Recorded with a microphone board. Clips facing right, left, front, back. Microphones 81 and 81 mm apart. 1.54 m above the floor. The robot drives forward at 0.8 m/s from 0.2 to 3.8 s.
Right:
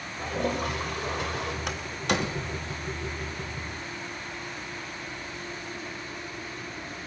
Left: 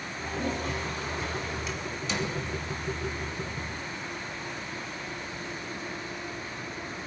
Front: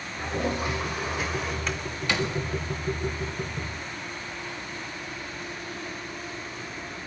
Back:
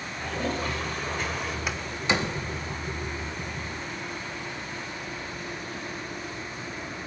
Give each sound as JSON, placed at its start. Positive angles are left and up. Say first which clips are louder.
{"t": 0.2, "sound": "a toilet flushing", "louder": "right 3 dB, front 2 dB", "azimuth_deg": -70, "distance_m": 3.5}
{"t": 1.7, "sound": "a door slam", "louder": "right 4 dB, back 1 dB", "azimuth_deg": -100, "distance_m": 1.7}